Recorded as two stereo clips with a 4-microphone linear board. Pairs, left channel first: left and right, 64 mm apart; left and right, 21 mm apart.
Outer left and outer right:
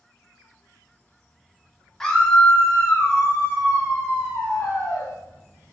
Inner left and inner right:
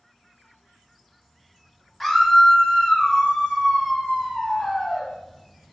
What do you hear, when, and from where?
2.0 s a scream: 5° left (ahead or behind), 0.7 m; by 5.1 s 75° left (ahead or behind), 2 m